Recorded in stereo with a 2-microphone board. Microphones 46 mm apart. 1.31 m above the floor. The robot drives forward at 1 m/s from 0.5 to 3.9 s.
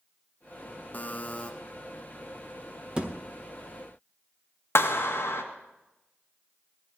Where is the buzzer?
40° left (ahead or behind), 0.7 m; by 1.5 s 25° left (ahead or behind), 1.0 m.